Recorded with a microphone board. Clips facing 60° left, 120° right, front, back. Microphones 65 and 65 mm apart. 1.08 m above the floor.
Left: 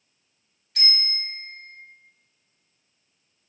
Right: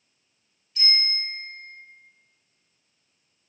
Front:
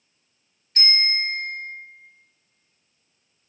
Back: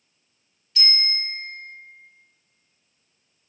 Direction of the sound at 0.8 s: 45° left.